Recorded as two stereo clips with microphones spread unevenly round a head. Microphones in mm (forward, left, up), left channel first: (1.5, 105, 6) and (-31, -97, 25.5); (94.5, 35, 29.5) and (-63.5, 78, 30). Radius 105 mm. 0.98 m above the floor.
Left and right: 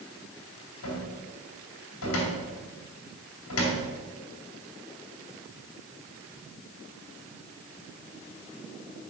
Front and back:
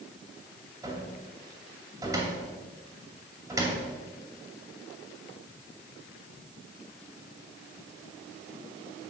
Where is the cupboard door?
95° left, 2.5 m.